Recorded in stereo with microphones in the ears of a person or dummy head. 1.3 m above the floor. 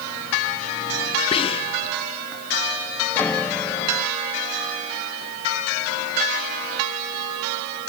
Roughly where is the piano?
Centre.